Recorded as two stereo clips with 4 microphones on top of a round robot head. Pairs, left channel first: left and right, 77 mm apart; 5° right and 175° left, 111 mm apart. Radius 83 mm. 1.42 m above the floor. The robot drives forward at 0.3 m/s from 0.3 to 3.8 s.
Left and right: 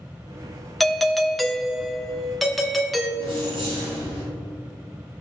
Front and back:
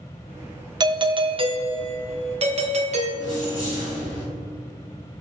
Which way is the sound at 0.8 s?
175° left.